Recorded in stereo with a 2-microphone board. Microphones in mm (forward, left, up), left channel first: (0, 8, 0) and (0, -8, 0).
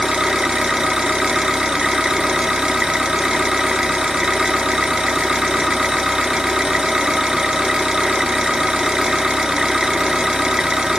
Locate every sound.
0.0 s an engine running: 75° right (ahead or behind), 0.8 m